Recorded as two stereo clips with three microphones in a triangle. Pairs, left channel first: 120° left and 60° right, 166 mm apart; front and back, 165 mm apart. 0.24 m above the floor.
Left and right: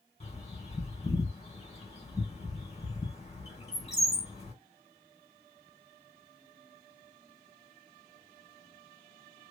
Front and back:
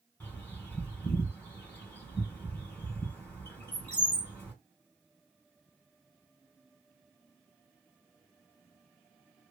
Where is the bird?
80° left, 1.7 m.